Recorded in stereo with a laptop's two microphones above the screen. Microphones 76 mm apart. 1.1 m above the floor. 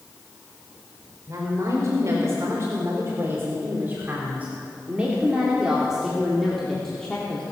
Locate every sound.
1.3 s a woman speaking: 45° right (ahead or behind), 4.5 m; by 7.4 s 15° left (ahead or behind), 3 m